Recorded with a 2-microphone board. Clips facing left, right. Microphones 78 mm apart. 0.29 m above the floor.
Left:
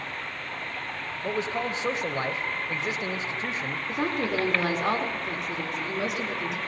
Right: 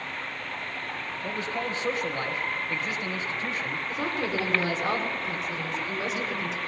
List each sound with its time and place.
1.2 s a man speaking: 20° left (ahead or behind), 1.0 m
3.9 s a woman speaking: 60° left (ahead or behind), 4.5 m